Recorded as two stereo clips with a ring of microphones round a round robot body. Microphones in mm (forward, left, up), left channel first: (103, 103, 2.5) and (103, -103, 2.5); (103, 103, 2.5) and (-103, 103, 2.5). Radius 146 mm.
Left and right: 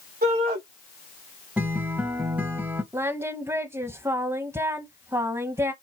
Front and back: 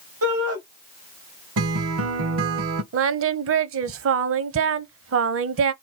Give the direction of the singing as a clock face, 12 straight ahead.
6 o'clock.